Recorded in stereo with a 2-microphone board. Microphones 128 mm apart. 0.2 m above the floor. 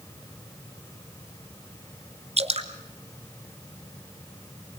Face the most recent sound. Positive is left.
turn(degrees=-55)  # may be behind; listen again after turning